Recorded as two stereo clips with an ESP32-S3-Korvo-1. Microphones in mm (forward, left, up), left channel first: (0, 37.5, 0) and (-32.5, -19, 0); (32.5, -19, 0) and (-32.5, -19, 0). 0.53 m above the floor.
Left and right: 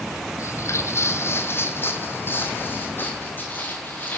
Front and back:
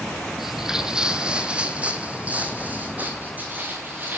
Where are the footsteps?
95° left, 1.4 m; by 4.2 s 120° left, 3 m.